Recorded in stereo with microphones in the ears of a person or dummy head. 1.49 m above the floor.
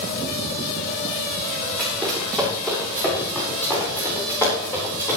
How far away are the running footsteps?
About 7.5 m.